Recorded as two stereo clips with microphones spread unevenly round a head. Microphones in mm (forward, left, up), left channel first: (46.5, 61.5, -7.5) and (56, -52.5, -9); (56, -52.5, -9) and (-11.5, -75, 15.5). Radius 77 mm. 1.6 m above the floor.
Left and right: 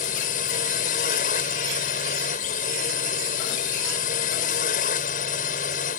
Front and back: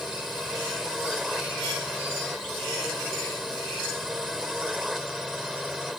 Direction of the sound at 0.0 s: 110° left.